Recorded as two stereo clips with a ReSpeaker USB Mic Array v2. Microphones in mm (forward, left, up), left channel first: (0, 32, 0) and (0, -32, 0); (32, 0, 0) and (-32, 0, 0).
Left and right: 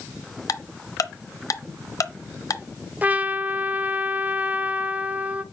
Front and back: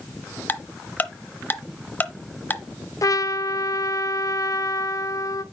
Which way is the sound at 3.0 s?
25° right.